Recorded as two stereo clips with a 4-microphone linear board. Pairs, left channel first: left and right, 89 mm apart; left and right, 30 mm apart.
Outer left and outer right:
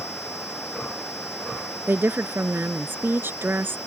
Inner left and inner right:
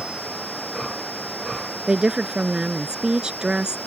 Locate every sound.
1.9 s a woman speaking: 25° right (ahead or behind)